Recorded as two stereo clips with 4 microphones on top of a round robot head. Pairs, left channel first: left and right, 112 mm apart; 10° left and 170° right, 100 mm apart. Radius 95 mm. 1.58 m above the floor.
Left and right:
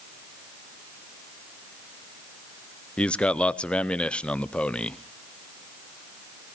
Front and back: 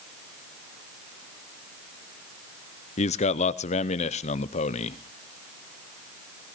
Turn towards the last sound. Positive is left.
turn(degrees=10)